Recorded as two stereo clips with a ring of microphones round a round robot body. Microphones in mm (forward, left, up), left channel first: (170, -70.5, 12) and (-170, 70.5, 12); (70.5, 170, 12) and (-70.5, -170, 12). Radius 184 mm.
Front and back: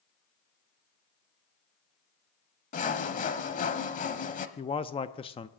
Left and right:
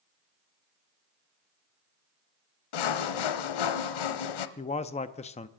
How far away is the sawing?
About 0.9 m.